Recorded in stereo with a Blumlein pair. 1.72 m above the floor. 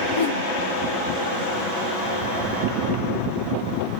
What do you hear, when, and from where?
0.1 s a whoosh: 55° left, 1.8 m